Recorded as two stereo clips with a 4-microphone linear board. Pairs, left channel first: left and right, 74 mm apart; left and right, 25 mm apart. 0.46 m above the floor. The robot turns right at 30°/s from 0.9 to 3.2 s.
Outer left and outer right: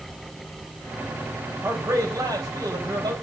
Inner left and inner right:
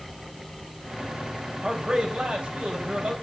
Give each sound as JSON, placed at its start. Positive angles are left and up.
{"t": 1.6, "sound": "a man speaking", "azimuth_deg": -140, "distance_m": 3.0}